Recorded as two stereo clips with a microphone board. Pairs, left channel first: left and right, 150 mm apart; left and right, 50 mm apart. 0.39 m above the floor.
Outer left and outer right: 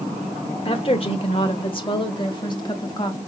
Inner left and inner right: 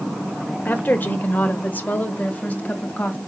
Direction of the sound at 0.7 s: 40° left (ahead or behind).